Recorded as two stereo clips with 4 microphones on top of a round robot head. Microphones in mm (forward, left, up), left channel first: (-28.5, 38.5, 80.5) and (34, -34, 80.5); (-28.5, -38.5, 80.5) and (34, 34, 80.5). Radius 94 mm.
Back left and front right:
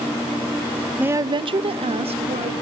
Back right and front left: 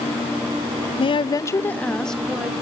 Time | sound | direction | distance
1.0 | a woman speaking | 125° right | 0.6 m